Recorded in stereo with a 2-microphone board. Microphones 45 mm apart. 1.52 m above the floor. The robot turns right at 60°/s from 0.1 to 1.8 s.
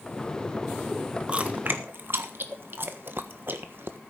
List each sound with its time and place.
1.3 s chewing: 25° right (ahead or behind), 1.4 m; by 4.0 s 55° right (ahead or behind), 1.4 m